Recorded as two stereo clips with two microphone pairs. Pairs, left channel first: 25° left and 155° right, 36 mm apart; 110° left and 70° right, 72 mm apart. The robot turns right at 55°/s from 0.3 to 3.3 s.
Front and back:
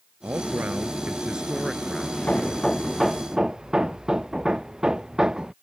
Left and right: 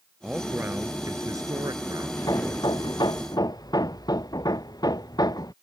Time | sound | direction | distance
0.2 | a man speaking | 145° right | ?
2.2 | hammering | 70° left | ?